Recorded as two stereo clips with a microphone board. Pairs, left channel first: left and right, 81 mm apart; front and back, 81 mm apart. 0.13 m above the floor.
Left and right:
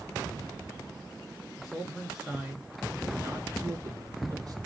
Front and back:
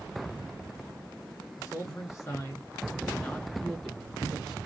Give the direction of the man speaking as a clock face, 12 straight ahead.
11 o'clock.